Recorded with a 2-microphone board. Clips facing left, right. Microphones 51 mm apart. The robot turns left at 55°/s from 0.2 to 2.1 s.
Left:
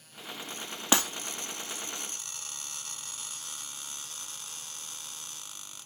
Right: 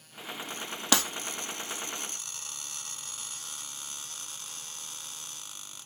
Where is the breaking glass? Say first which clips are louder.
Even; 25° left (ahead or behind), 2 m; by 1.0 s 20° left (ahead or behind), 2 m.